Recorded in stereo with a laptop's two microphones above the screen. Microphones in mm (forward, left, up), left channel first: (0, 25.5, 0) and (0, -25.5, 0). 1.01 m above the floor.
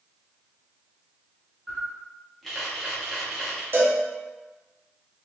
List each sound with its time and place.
1.7 s a camera shutter: centre (ahead or behind), 1.1 m
3.7 s a cowbell: 45° right (ahead or behind), 0.6 m